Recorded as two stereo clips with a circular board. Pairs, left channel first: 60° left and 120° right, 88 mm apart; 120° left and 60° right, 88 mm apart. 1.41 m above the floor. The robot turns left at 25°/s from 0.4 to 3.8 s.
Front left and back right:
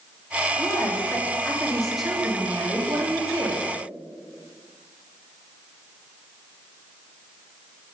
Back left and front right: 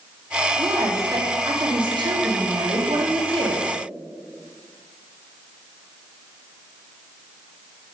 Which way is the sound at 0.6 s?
5° left.